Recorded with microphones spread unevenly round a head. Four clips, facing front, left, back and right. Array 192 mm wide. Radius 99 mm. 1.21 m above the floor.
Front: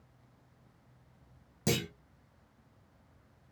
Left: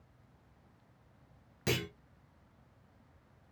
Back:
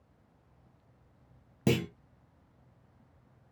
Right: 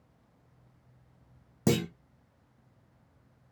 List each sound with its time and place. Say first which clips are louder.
1.7 s a clunk: right 8 dB, back 4 dB; 120° right, 0.7 m